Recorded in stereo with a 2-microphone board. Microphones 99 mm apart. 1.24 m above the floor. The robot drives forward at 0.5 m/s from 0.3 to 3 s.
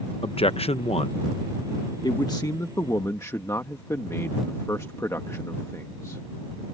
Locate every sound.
0.2 s a man speaking: 70° left (ahead or behind); by 6.2 s 30° left (ahead or behind)